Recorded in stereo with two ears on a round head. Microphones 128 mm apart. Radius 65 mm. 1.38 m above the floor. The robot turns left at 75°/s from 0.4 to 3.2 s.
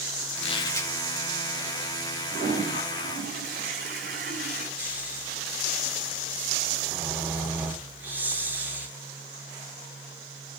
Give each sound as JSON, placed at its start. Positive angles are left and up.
{"t": 0.4, "sound": "a squeak", "azimuth_deg": 50, "distance_m": 1.4}
{"t": 2.3, "sound": "a toilet flushing", "azimuth_deg": -35, "distance_m": 6.0}
{"t": 4.8, "sound": "snoring", "side_deg": -15, "distance_m": 2.5}